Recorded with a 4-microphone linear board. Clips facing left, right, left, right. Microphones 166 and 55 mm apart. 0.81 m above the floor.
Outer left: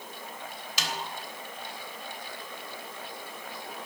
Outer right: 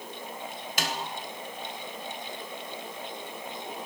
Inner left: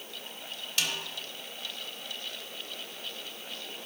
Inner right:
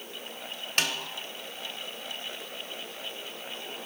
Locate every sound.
0.8 s a snare drum: 55° right (ahead or behind), 1.1 m